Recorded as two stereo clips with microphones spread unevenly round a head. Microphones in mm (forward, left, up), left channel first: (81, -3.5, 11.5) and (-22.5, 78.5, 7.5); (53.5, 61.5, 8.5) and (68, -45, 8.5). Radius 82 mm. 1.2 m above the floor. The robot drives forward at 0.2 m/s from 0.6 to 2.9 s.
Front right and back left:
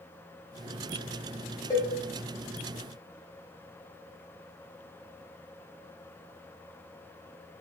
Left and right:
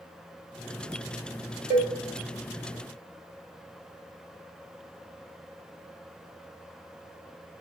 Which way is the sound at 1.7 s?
100° right.